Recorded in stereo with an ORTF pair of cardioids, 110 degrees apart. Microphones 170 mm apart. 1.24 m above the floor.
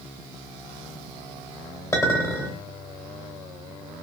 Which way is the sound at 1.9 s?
20° left.